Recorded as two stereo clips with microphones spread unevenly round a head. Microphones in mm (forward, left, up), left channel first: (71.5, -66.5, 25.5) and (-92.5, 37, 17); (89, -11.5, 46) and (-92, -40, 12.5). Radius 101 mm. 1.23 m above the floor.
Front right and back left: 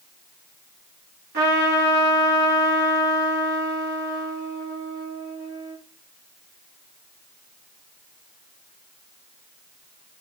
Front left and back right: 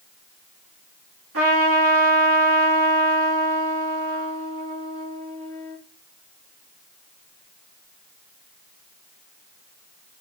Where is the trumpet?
175° right, 3 m.